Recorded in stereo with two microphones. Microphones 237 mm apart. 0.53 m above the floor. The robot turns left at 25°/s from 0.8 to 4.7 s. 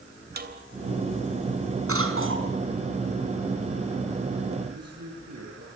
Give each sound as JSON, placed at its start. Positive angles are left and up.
{"t": 0.4, "sound": "a snare drum", "side_deg": -40, "distance_m": 2.5}
{"t": 1.9, "sound": "a cough", "side_deg": -65, "distance_m": 6.0}
{"t": 4.7, "sound": "a man speaking", "side_deg": -85, "distance_m": 9.0}